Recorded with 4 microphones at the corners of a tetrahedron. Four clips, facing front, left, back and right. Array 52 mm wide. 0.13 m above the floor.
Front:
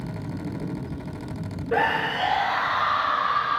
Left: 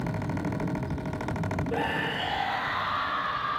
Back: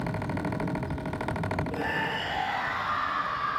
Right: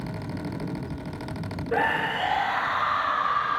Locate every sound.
1.7 s a scream: 25° right, 6.5 m; by 3.6 s 20° right, 5.5 m